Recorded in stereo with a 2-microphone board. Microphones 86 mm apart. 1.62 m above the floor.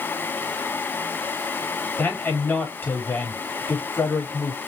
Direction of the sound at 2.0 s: 25° left (ahead or behind).